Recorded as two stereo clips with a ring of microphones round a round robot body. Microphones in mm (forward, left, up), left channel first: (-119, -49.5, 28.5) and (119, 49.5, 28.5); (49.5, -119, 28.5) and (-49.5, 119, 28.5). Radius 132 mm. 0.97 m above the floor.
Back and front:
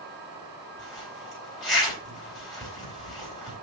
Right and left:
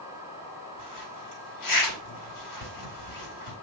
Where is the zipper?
70° right, 5.5 m.